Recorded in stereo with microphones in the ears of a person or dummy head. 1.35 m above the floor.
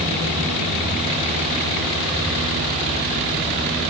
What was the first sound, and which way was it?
Only background noise.